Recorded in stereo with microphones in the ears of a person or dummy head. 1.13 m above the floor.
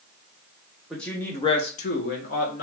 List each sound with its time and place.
0.9 s a woman speaking: 5° left (ahead or behind), 0.7 m; by 2.6 s 55° left (ahead or behind), 0.9 m